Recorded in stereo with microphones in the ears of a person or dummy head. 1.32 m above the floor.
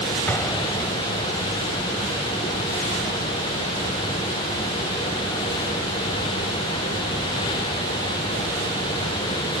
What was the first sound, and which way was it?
An explosion, 10° left (ahead or behind).